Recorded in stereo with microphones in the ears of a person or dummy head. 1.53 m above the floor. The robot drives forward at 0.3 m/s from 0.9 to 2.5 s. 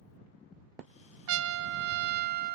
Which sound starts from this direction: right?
A trumpet, at 1.3 s.